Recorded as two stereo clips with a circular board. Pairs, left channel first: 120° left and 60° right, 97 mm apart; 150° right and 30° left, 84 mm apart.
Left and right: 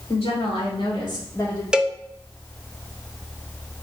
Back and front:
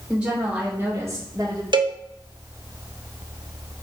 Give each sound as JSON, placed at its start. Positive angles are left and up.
{"t": 0.1, "sound": "a woman speaking", "azimuth_deg": 105, "distance_m": 3.0}
{"t": 1.7, "sound": "a cowbell", "azimuth_deg": 20, "distance_m": 0.5}